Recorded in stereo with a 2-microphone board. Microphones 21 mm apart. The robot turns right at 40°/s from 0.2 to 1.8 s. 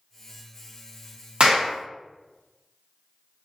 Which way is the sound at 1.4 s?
45° right (ahead or behind).